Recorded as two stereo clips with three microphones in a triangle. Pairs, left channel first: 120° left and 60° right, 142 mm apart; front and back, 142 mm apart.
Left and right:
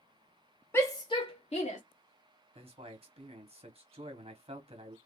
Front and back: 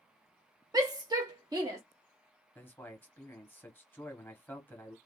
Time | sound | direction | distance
0.7 | a shout | 170° left | 0.6 m
2.5 | a man speaking | 70° right | 1.1 m